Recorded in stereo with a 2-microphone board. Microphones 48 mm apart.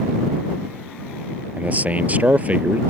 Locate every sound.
1.6 s a man speaking: 35° right (ahead or behind)